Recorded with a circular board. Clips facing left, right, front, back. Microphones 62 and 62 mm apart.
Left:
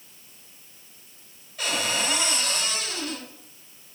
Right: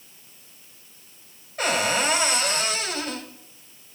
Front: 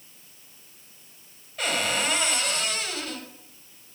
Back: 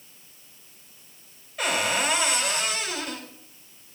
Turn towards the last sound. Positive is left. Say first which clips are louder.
# right 5 dB, back 2 dB
turn(degrees=-95)